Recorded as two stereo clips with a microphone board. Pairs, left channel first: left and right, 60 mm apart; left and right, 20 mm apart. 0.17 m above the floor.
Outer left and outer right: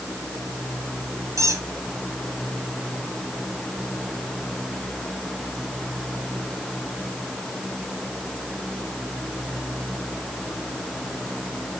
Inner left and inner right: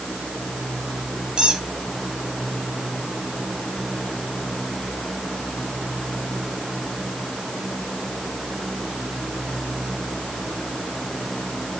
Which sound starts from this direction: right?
A squeak, at 1.4 s.